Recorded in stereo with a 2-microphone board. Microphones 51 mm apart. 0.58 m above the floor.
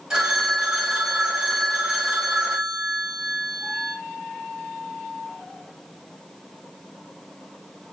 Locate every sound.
0.1 s a phone ringing: 15° right (ahead or behind), 2.0 m